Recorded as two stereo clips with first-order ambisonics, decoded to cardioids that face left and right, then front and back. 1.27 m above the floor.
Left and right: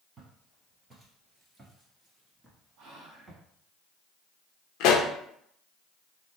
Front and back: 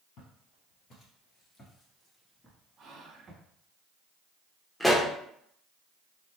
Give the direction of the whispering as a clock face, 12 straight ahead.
4 o'clock.